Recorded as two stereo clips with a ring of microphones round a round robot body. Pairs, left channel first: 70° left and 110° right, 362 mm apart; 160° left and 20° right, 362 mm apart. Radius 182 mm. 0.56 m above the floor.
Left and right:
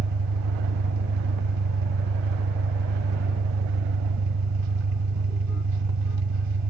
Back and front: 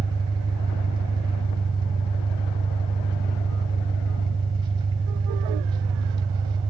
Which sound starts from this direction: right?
An engine running, at 0.0 s.